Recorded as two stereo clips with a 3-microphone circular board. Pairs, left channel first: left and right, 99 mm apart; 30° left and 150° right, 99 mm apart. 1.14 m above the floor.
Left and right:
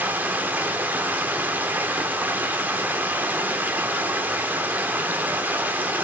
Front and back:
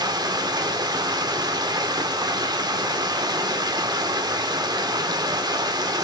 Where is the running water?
155° right, 0.9 m.